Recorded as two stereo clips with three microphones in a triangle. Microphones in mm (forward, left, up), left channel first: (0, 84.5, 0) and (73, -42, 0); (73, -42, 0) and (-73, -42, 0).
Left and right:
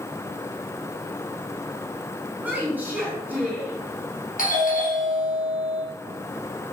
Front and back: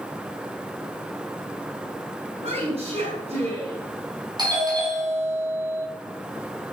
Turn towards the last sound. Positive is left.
turn(degrees=125)